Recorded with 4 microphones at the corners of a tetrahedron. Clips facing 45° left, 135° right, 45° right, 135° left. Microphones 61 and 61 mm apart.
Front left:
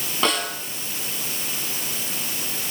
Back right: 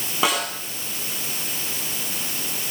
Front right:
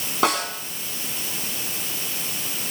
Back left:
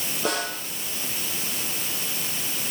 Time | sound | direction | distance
0.2 | a snare drum | 55° right | 7 m